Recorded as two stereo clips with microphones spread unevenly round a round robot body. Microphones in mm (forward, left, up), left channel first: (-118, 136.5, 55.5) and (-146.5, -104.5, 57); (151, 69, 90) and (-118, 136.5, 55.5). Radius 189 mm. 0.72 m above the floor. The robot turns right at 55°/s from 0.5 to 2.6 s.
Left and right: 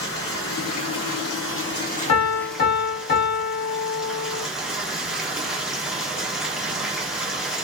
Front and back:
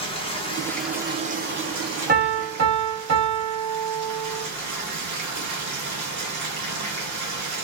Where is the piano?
105° left, 0.7 m; by 4.5 s 135° left, 0.7 m.